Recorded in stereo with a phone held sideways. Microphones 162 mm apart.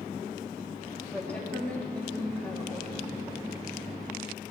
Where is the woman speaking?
10° left (ahead or behind), 1.5 m.